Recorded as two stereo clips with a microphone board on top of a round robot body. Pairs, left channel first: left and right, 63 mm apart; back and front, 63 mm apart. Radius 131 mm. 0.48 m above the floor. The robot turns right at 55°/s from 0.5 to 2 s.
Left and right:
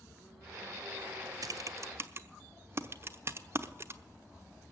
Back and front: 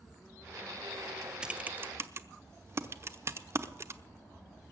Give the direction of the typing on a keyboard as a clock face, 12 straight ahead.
2 o'clock.